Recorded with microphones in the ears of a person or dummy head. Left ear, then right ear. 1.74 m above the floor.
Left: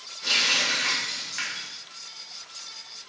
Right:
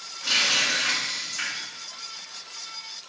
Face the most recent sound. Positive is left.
turn(degrees=60)  # may be behind; listen again after turning